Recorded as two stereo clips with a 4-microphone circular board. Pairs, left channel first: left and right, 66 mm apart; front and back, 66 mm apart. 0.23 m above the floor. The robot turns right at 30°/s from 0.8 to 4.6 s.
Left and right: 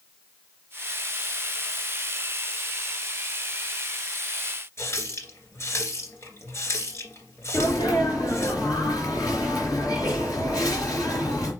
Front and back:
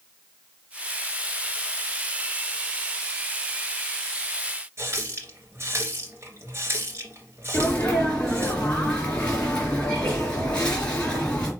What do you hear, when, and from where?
4.8 s a running tap: 135° left, 2.5 m
7.5 s a sneeze: 75° left, 3.5 m